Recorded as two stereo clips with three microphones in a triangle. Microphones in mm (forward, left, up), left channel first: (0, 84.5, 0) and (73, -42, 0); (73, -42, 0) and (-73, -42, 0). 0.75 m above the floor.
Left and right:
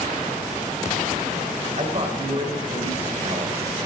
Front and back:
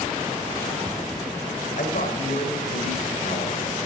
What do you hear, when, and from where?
1.8 s a man speaking: 15° right, 2.5 m